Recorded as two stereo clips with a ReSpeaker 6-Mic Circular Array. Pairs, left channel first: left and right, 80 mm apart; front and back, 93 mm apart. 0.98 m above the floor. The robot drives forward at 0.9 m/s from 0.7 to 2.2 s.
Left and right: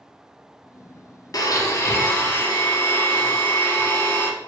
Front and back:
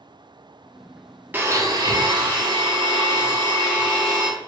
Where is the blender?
115° left, 0.7 m; by 4.3 s 155° left, 1.2 m.